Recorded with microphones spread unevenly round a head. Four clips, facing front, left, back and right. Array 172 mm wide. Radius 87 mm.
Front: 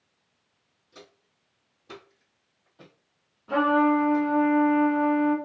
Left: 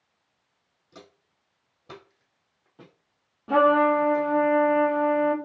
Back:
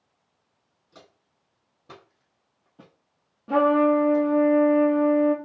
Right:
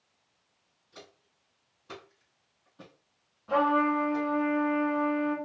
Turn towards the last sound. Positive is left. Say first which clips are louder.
# left 6 dB, back 2 dB
turn(degrees=125)